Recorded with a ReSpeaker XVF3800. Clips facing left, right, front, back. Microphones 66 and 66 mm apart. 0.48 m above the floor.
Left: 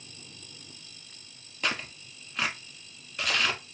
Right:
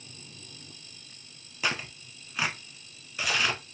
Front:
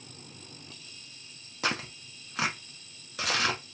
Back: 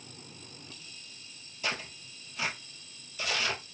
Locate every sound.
1.6 s tearing paper: 5° right, 1.0 m